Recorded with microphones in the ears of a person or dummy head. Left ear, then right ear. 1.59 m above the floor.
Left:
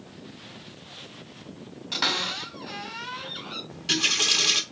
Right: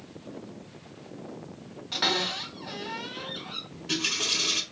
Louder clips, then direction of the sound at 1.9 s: Left 1 dB; 10° left (ahead or behind).